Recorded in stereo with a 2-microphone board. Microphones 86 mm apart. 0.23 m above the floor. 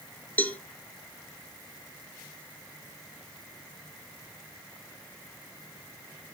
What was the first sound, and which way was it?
A cowbell, 20° left (ahead or behind).